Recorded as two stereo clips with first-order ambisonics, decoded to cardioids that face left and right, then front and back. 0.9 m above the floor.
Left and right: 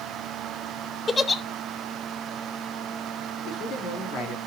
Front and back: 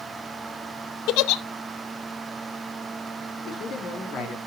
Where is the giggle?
15° left, 0.6 m.